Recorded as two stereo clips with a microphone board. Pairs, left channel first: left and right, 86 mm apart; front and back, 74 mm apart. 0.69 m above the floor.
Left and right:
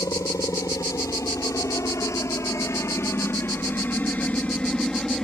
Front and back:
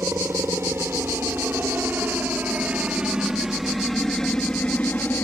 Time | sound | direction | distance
0.0 | a helicopter | 135° left | ?